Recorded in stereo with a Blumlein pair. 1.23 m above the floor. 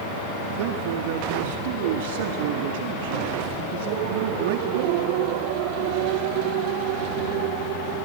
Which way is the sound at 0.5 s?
55° right.